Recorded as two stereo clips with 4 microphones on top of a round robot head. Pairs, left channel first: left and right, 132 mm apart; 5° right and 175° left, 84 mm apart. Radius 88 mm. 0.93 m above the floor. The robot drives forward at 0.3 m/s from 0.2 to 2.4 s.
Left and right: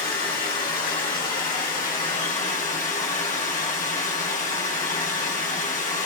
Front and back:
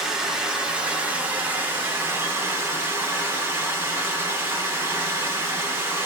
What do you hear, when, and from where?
0.0 s running water: 95° left, 1.5 m; by 6.1 s 115° left, 1.7 m